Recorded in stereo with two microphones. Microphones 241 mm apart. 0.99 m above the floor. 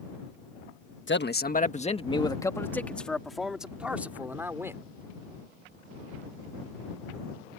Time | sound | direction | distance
1.1 | a man speaking | 50° left (ahead or behind) | ?